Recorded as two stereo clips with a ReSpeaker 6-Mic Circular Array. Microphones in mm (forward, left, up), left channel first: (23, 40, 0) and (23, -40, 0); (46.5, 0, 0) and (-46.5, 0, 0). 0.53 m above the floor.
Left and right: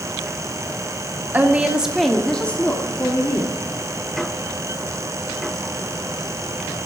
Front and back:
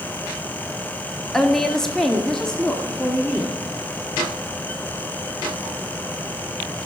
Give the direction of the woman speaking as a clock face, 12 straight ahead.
3 o'clock.